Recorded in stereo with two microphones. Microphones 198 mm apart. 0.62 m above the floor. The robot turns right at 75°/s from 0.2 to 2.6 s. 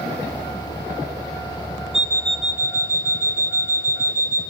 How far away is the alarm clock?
About 1.0 m.